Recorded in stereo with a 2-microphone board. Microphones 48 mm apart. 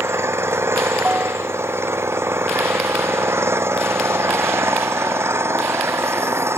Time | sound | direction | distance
0.0 | an engine running | 65° right (ahead or behind) | ?
1.1 | a bell | 35° right (ahead or behind) | ?